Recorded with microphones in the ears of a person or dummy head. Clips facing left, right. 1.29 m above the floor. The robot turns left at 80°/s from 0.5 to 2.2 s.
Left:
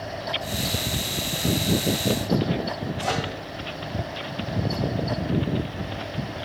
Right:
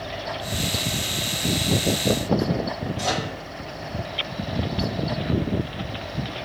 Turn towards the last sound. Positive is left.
turn(degrees=-80)